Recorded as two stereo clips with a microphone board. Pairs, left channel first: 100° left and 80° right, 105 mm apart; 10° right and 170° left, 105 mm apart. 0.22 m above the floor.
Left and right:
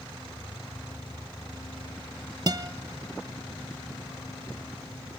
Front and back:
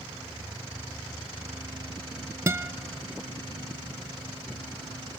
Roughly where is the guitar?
Behind right.